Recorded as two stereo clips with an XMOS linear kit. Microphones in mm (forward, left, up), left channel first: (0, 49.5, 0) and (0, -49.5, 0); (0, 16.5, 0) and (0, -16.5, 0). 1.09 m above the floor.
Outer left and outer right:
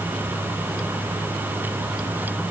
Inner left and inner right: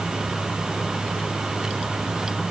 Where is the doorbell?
No doorbell in this recording.